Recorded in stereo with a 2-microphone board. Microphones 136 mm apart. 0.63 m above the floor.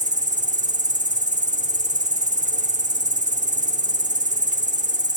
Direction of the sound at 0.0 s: 65° right (ahead or behind).